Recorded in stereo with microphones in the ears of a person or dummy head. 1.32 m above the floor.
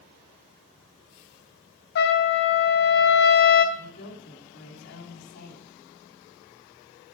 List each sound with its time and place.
1.9 s a trumpet: 60° left (ahead or behind), 2 m
3.8 s a woman speaking: 65° left (ahead or behind), 8 m